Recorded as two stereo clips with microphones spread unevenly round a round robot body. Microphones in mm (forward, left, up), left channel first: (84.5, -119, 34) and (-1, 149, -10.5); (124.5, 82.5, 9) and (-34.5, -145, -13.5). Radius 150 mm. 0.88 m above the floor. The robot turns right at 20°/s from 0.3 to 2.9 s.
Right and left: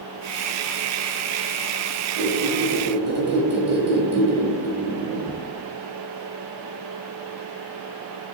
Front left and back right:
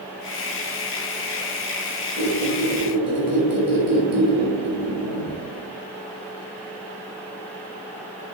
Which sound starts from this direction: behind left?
A squeak, at 2.2 s.